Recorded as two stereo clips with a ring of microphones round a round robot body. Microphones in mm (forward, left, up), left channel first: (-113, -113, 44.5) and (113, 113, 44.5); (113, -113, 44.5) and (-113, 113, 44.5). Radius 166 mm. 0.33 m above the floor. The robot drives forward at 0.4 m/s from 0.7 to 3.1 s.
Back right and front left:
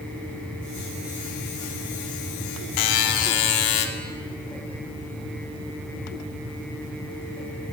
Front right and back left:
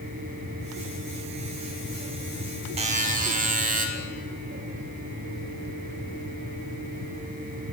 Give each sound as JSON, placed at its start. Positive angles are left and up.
{"t": 2.8, "sound": "a buzzer", "azimuth_deg": -150, "distance_m": 0.6}